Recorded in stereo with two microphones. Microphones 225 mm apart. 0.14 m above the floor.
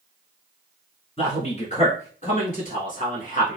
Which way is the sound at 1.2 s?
30° left (ahead or behind).